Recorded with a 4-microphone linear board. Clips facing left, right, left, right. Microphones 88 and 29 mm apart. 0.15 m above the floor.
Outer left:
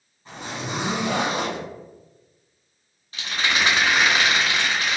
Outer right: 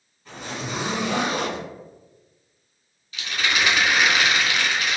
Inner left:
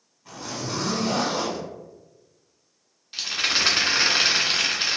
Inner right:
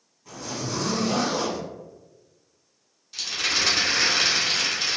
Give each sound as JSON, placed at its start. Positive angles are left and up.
{"t": 0.2, "sound": "a zipper", "side_deg": 25, "distance_m": 1.6}
{"t": 3.1, "sound": "a rattle", "side_deg": 35, "distance_m": 0.7}